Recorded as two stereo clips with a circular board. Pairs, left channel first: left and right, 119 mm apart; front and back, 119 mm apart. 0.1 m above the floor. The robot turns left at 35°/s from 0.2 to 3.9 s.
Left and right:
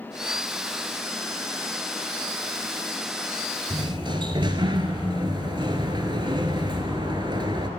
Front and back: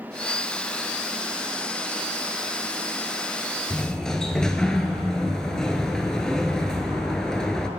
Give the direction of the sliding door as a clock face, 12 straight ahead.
2 o'clock.